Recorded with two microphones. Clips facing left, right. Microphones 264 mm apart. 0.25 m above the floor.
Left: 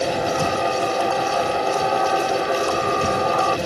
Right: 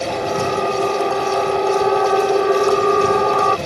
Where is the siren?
55° right (ahead or behind); by 3.6 s 65° right (ahead or behind).